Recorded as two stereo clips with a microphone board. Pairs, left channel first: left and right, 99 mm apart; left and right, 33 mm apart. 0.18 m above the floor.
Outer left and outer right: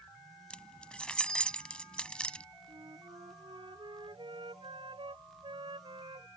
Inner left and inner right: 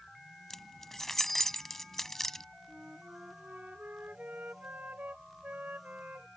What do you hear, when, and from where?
0.5 s keys jangling: 10° left (ahead or behind)
2.7 s a flute: 60° right (ahead or behind)